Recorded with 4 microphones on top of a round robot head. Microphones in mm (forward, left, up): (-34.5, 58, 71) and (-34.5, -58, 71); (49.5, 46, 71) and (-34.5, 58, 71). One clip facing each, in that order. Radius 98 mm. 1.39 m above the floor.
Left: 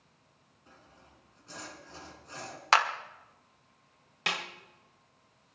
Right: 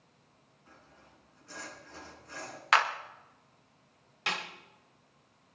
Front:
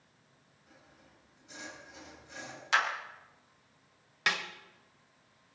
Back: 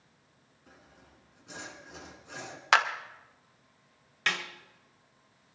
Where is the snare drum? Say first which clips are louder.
Even, even; 60° left, 1.2 m.